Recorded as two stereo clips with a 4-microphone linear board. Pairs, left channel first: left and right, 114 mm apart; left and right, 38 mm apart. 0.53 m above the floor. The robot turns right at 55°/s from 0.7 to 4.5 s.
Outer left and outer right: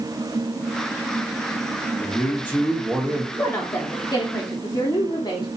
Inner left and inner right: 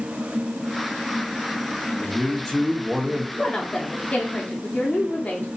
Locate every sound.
2.0 s a man speaking: 125° left, 0.8 m; by 3.2 s 165° right, 0.8 m
3.3 s a woman speaking: 35° left, 0.7 m; by 5.6 s 100° left, 0.7 m